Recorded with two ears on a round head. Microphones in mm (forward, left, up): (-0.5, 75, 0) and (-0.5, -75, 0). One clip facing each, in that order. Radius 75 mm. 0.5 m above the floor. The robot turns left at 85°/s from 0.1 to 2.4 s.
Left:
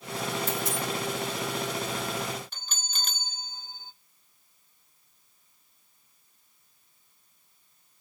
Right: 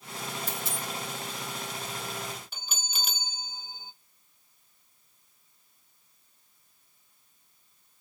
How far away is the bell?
About 0.5 m.